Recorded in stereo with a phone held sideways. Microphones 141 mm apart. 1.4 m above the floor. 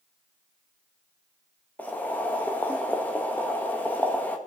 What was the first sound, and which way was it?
Boiling, 10° left (ahead or behind).